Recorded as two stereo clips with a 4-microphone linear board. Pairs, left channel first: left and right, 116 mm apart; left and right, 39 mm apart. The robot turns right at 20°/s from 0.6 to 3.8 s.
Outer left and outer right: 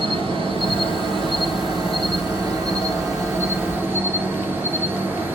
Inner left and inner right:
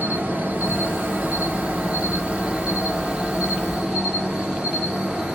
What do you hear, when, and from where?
0.0 s an insect: 90° right, 1.4 m; by 5.4 s 25° right, 1.4 m